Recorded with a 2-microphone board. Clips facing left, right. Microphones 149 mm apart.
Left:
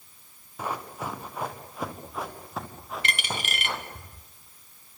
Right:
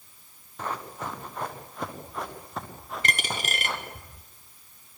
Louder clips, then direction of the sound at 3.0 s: Right 2 dB; 40° right (ahead or behind).